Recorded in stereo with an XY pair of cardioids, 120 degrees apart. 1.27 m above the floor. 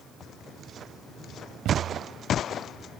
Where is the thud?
70° right.